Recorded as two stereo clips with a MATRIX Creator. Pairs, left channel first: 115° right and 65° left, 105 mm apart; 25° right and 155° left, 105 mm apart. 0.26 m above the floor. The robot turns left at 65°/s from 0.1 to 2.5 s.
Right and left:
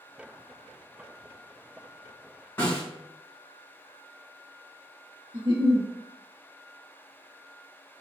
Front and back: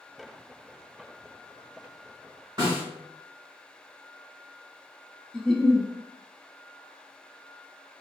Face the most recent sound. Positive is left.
turn(degrees=55)